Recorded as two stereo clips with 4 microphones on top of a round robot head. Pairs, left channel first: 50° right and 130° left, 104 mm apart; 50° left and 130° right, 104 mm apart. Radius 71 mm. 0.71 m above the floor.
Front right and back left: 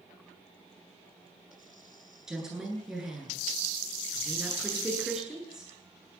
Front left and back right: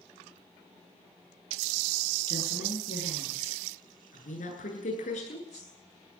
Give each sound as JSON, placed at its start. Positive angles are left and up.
{"t": 2.3, "sound": "a woman speaking", "azimuth_deg": 45, "distance_m": 10.0}